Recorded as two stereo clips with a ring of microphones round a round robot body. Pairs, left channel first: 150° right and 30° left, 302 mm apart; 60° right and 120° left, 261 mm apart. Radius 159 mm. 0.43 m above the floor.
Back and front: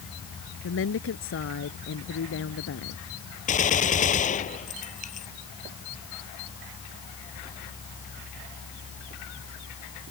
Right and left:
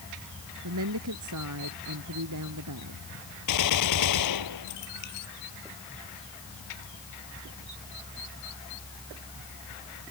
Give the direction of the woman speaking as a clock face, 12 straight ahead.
7 o'clock.